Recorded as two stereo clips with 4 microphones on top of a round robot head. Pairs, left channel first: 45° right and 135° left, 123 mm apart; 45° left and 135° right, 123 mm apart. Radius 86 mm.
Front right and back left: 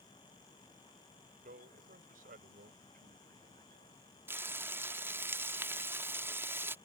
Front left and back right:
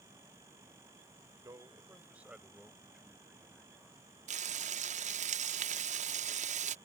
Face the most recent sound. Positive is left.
turn(degrees=-150)